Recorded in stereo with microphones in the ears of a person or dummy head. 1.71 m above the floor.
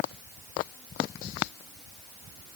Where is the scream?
I don't hear a scream.